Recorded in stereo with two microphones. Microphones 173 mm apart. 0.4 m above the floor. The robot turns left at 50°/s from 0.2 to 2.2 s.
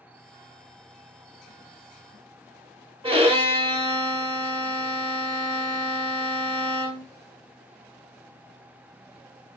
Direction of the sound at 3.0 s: 30° right (ahead or behind).